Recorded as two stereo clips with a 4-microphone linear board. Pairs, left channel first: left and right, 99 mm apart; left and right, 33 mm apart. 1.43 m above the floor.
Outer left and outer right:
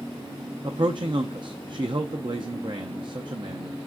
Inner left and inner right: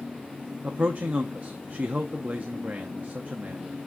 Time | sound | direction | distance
0.6 | a man speaking | 55° right (ahead or behind) | 0.7 m